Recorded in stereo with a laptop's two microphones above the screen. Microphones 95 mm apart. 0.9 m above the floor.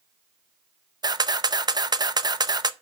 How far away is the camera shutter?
About 0.6 m.